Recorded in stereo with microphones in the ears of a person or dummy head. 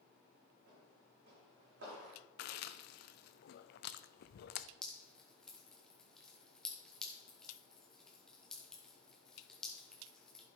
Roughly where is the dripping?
Centre.